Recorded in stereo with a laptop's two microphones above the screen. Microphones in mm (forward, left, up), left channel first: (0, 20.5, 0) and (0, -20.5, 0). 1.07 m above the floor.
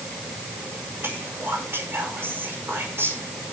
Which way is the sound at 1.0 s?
75° right (ahead or behind).